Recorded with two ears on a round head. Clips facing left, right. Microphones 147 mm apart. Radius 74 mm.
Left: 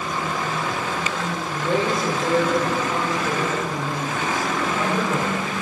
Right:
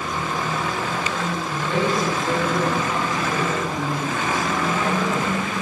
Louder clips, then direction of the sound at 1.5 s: Left 1 dB; 40° left (ahead or behind).